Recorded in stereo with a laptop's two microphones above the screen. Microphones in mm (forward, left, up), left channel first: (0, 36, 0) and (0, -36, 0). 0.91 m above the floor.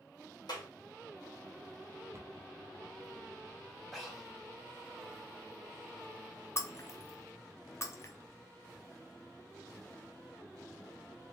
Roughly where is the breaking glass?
Left.